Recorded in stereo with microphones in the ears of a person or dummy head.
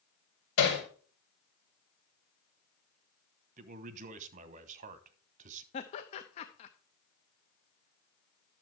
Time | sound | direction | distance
0.6 | hammering | 70° left (ahead or behind) | 5.5 m
3.6 | a man speaking | 45° right (ahead or behind) | 1.1 m
5.7 | laughter | 35° left (ahead or behind) | 0.8 m